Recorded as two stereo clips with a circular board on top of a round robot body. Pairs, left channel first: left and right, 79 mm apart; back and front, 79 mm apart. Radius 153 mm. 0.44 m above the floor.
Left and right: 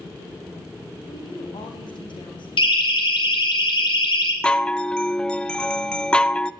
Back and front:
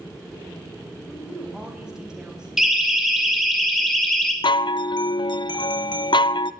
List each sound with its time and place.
1.1 s a woman speaking: 80° left, 4 m
2.6 s a siren: 85° left, 3.5 m; by 4.3 s 100° left, 3 m
4.4 s a chime: 170° left, 0.6 m